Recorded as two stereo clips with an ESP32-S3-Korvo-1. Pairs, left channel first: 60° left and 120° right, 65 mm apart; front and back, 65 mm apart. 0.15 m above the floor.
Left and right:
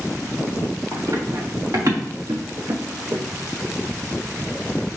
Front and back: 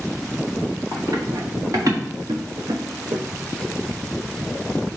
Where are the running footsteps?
150° right, 2.5 m; by 3.2 s 160° right, 1.0 m.